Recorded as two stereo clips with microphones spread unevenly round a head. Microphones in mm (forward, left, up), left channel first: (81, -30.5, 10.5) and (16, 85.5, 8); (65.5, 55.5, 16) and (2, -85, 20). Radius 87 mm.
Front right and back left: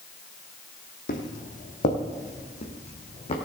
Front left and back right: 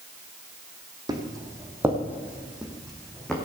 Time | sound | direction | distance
1.1 | footsteps | 50° right | 2 m